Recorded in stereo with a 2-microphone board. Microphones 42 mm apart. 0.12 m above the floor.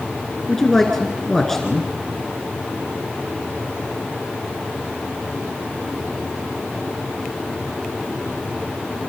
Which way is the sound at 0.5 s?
10° left (ahead or behind).